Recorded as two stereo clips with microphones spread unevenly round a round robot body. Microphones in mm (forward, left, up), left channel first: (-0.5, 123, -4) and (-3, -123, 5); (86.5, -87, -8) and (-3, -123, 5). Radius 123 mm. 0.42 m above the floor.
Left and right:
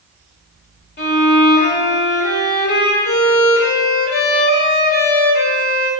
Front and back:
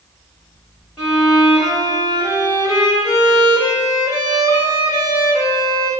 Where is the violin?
110° left, 1.9 m.